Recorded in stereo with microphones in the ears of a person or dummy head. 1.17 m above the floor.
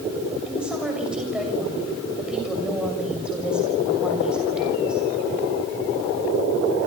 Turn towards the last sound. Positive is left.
turn(degrees=-5)  # may be behind; listen again after turning